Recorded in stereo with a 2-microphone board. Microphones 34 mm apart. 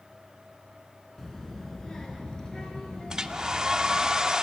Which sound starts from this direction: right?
A hair dryer, at 3.1 s.